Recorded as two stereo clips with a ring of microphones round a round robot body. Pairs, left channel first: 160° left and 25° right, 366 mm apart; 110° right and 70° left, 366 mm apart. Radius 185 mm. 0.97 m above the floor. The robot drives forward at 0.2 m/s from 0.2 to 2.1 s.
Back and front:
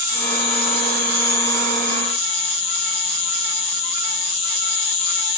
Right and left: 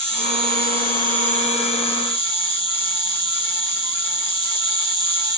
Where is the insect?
140° left, 2.5 m; by 5.4 s 145° left, 3 m.